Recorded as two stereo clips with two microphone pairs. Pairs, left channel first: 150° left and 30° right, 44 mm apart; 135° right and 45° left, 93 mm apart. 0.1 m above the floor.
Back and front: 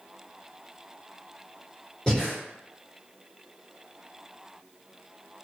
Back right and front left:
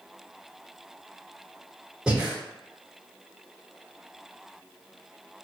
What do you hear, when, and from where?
2.1 s breathing: 110° left, 1.7 m